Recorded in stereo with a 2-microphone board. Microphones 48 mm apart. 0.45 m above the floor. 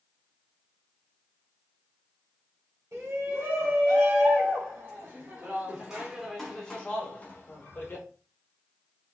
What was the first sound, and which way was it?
A shout, 60° right (ahead or behind).